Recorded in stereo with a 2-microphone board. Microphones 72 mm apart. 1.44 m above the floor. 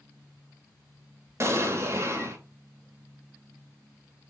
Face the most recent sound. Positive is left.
turn(degrees=-40)  # may be behind; listen again after turning